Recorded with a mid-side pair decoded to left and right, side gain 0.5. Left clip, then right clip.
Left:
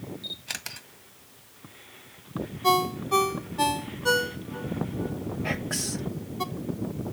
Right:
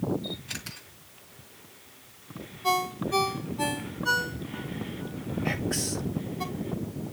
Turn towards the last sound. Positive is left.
turn(degrees=40)